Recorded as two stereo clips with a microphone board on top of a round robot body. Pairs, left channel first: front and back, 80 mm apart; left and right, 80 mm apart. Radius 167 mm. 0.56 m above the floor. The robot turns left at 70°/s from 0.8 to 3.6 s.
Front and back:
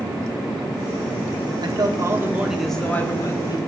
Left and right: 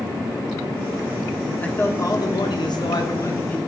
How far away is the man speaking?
About 1.7 m.